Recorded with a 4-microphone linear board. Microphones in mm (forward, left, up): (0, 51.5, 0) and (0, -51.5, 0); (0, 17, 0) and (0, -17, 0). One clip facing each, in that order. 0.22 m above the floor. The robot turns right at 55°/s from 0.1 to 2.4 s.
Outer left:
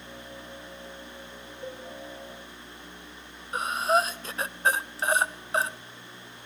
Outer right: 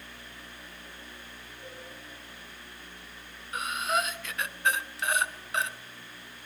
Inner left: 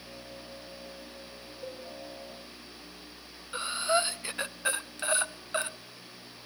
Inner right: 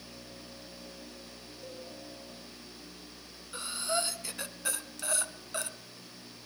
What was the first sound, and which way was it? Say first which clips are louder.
A cowbell: outer left 8 dB, inner left 4 dB; 60° left (ahead or behind).